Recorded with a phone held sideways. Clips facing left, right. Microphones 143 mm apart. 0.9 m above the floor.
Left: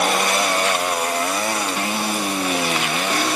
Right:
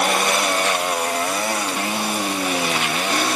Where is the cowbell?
I don't hear a cowbell.